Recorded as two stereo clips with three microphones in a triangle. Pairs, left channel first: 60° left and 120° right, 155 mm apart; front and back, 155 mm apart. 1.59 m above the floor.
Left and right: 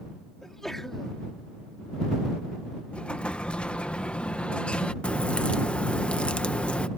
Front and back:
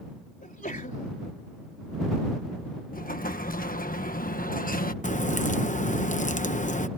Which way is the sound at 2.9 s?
25° right.